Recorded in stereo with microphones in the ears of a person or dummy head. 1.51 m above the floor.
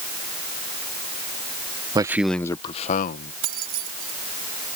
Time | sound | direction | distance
1.9 | a man speaking | 20° right (ahead or behind) | ?
3.4 | keys jangling | 50° right (ahead or behind) | ?